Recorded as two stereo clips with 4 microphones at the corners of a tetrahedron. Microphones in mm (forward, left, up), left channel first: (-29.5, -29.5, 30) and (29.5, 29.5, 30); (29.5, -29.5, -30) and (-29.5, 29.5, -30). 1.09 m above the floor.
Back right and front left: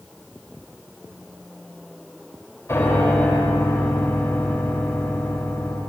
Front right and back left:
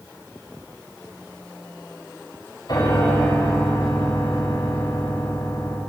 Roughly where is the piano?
Right.